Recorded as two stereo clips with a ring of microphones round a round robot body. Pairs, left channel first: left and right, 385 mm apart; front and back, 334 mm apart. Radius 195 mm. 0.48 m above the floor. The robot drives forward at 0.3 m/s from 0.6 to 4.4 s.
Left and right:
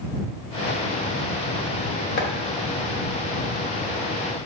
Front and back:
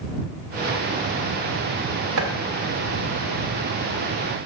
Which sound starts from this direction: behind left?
Chopping, at 2.2 s.